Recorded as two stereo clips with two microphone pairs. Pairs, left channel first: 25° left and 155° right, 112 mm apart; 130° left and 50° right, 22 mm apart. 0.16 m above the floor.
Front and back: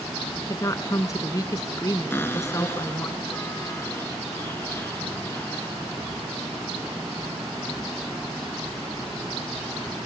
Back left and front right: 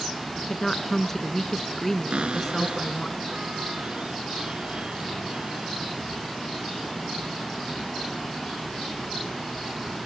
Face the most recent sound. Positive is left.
turn(degrees=-45)